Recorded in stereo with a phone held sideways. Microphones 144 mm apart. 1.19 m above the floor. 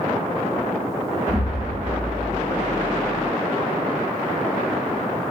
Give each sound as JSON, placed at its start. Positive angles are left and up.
{"t": 1.3, "sound": "an explosion", "side_deg": -25, "distance_m": 2.0}